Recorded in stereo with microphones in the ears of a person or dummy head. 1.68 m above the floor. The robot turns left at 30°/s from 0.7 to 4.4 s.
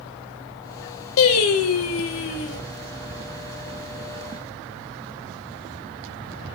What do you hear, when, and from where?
1.2 s singing: 105° left, 0.9 m; by 2.6 s 65° left, 0.9 m